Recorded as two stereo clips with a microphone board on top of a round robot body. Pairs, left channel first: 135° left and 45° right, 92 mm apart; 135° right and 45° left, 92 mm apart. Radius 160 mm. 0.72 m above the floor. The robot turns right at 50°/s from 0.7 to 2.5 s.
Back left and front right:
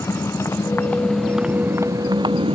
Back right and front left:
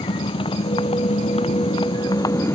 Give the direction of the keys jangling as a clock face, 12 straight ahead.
No keys jangling in this recording.